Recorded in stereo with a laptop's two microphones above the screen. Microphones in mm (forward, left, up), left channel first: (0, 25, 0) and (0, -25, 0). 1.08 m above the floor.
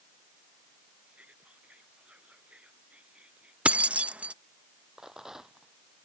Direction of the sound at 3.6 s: 25° right (ahead or behind).